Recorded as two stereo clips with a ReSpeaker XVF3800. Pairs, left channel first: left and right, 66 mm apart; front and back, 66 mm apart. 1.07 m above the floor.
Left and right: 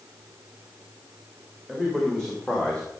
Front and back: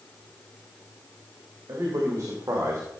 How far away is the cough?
No cough in this recording.